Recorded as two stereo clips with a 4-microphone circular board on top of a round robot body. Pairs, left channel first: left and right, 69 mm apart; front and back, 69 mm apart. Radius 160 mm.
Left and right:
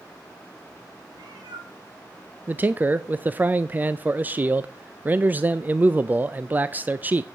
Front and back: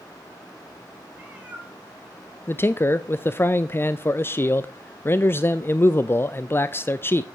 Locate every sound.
1.1 s a cat meowing: 110° right, 1.6 m; by 3.5 s 105° right, 3.5 m
2.5 s a man speaking: 35° right, 0.6 m